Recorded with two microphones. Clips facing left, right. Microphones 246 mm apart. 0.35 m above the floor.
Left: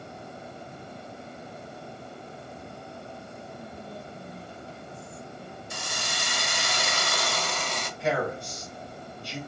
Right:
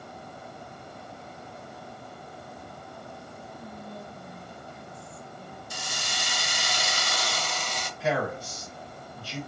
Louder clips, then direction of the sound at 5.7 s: Left 2 dB; 60° left (ahead or behind).